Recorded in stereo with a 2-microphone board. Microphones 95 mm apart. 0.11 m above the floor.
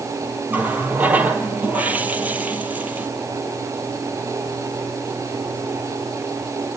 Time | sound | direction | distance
0.5 | a running tap | 15° right (ahead or behind) | 1.8 m